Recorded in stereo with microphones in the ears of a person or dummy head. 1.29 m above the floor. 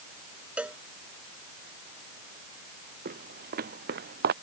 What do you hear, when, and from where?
0.6 s a cowbell: 5° right (ahead or behind)
3.0 s footsteps: 55° right (ahead or behind); by 4.3 s 60° right (ahead or behind)